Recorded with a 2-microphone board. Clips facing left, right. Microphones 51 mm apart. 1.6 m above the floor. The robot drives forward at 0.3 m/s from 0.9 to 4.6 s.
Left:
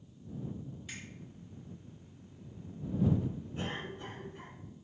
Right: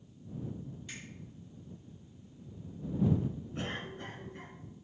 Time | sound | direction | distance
0.9 | a finger snap | 15° left (ahead or behind) | 1.9 m
3.5 | a cough | 65° right (ahead or behind) | 1.8 m